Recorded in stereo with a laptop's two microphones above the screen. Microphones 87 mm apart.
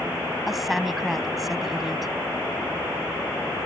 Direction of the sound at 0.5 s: 5° right (ahead or behind).